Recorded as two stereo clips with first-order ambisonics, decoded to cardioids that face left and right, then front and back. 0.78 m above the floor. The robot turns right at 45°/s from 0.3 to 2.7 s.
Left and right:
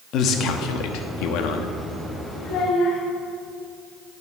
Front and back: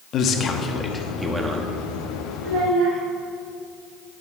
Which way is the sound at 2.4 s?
130° left.